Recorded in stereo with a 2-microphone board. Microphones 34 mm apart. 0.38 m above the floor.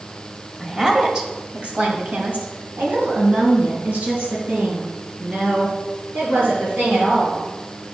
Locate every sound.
0.6 s a woman speaking: 10° right (ahead or behind), 1.5 m; by 7.4 s 80° right, 6.5 m